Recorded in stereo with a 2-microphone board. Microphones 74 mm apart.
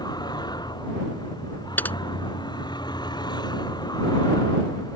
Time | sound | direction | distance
0.0 | a vehicle | 75° left (ahead or behind) | ?
1.8 | typing on a keyboard | 25° left (ahead or behind) | ?